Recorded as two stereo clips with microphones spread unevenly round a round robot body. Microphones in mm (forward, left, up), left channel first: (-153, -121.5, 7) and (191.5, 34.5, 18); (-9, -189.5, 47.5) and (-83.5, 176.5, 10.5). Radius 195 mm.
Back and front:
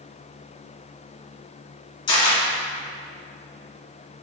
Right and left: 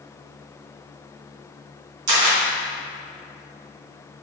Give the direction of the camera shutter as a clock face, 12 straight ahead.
8 o'clock.